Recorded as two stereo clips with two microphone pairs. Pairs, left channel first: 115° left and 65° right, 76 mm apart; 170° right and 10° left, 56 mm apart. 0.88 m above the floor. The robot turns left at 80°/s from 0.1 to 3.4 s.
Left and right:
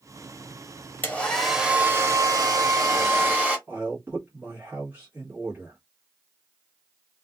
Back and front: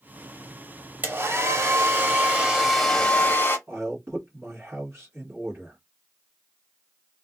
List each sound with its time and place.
1.0 s a hair dryer: 55° left, 0.9 m; by 3.6 s 135° right, 0.9 m
3.7 s a man speaking: 15° right, 1.1 m